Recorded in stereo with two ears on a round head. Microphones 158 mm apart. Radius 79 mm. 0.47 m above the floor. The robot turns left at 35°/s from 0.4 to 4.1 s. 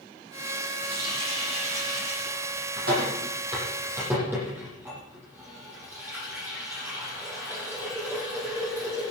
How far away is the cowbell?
I don't hear a cowbell.